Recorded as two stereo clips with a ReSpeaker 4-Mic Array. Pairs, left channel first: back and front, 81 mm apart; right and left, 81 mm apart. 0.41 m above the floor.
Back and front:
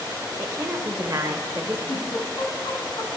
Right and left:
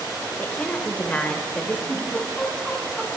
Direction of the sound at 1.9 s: 170° right.